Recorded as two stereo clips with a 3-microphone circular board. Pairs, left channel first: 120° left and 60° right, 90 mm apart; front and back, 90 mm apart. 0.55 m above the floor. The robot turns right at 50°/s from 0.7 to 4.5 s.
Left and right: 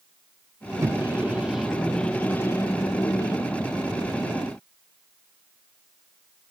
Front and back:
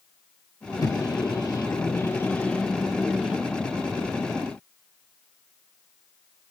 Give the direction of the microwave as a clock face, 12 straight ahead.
1 o'clock.